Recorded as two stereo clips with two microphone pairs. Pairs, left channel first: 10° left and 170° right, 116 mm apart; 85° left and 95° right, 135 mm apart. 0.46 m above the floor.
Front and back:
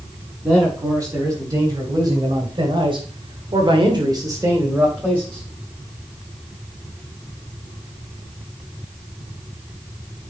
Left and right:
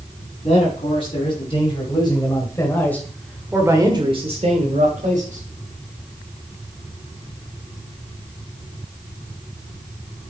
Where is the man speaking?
125° left, 4.5 m; by 5.5 s 90° right, 3 m.